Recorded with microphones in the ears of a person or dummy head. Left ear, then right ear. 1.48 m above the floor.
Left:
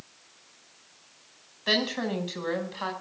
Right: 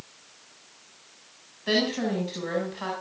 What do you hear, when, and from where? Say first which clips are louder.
1.7 s a woman speaking: right 1 dB; 45° left (ahead or behind), 7 m; by 2.9 s 35° left (ahead or behind), 7.5 m